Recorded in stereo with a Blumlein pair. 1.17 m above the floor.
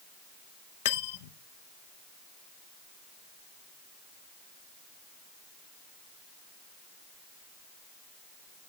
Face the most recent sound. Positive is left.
turn(degrees=55)